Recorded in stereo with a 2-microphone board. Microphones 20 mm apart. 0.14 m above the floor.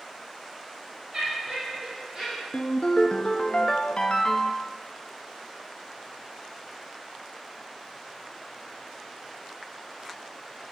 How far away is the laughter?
About 4 m.